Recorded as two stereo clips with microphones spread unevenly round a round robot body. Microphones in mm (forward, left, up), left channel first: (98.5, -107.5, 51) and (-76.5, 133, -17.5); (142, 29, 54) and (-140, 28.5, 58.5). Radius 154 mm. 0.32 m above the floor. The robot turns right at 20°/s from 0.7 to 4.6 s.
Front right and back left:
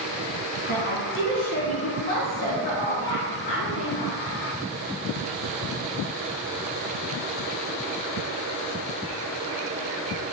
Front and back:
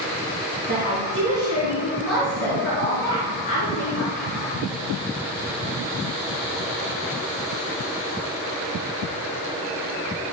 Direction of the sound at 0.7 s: 120° right.